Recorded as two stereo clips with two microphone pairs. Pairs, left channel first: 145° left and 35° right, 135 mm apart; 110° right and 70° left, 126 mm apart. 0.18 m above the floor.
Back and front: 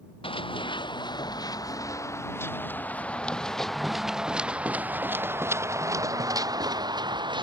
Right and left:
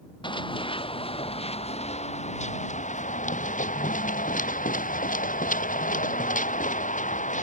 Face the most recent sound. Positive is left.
turn(degrees=-90)